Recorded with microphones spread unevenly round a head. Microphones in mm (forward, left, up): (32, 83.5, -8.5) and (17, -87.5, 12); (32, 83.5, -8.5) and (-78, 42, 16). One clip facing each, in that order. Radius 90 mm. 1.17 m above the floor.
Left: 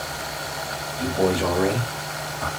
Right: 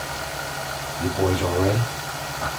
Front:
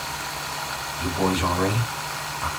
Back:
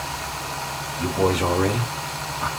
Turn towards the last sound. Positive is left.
turn(degrees=-155)